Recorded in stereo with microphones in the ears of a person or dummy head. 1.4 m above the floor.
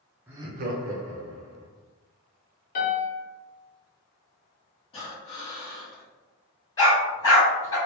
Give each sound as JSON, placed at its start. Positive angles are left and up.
{"t": 0.3, "sound": "laughter", "side_deg": -10, "distance_m": 0.8}
{"t": 2.8, "sound": "a piano", "side_deg": 45, "distance_m": 0.8}
{"t": 4.9, "sound": "breathing", "side_deg": 30, "distance_m": 1.2}
{"t": 6.8, "sound": "a dog barking", "side_deg": 20, "distance_m": 1.9}